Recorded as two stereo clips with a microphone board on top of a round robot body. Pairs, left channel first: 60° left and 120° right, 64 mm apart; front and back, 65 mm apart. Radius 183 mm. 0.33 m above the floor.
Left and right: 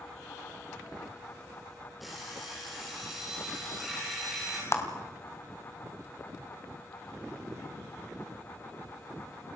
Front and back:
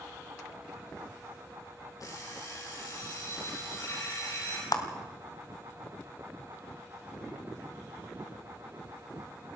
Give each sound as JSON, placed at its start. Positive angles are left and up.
{"t": 2.0, "sound": "an alarm clock", "azimuth_deg": -30, "distance_m": 8.0}
{"t": 4.7, "sound": "a clap", "azimuth_deg": 15, "distance_m": 2.5}